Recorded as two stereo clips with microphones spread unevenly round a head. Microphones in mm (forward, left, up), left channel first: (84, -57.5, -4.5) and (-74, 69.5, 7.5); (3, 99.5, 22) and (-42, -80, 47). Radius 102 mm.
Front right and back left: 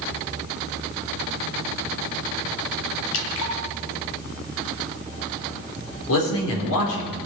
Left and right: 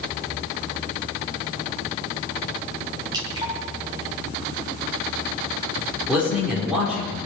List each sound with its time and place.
3.1 s dripping: 35° right, 2.5 m
6.1 s a man speaking: 20° right, 4.5 m